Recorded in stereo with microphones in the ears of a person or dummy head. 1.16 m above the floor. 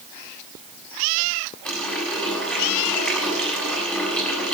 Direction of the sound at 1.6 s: 10° left (ahead or behind).